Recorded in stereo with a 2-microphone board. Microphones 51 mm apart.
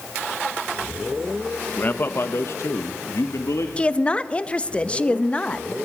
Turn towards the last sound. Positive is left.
turn(degrees=20)  # may be behind; listen again after turning